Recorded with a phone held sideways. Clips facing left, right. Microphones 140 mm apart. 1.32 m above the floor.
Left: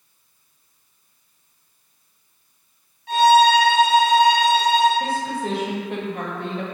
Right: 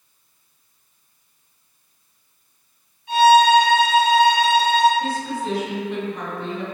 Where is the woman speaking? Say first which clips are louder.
Left 1 dB; 55° left (ahead or behind), 1.0 m.